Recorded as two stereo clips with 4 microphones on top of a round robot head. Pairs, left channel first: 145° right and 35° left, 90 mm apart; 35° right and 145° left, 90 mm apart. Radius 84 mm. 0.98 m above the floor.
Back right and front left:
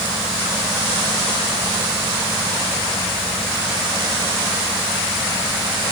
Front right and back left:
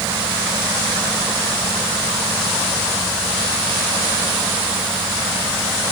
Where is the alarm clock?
No alarm clock in this recording.